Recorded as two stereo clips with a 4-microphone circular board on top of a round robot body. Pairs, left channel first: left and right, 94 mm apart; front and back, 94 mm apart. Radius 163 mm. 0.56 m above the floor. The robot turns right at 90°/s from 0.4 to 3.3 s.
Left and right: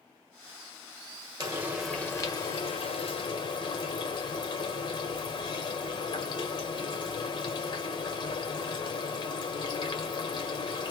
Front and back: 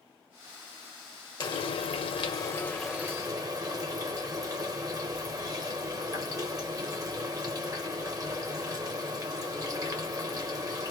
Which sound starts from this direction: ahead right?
Frying, at 1.4 s.